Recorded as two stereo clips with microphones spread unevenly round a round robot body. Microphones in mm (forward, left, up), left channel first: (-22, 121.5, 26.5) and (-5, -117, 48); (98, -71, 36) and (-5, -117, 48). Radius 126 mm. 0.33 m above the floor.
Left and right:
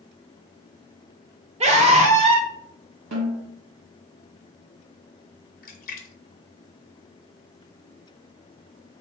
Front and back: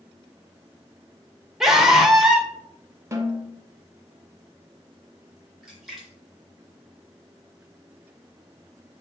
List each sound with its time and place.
1.6 s a scream: 65° right, 0.9 m
3.1 s a snare drum: 90° right, 1.2 m
5.6 s a splash: 115° left, 0.7 m